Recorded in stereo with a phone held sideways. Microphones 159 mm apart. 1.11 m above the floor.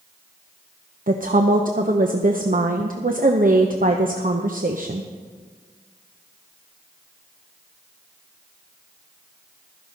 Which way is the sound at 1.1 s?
60° right (ahead or behind).